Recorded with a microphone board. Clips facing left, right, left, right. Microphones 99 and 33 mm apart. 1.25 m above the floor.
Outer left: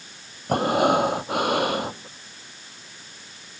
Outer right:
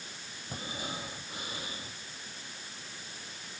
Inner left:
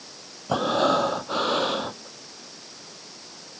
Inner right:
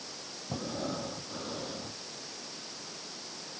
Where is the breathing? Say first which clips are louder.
Outer left 21 dB, inner left 15 dB; 85° left.